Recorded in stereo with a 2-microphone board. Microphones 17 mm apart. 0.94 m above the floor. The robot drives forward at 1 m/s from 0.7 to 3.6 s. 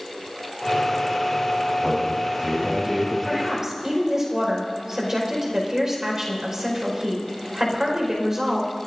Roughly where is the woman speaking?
Right.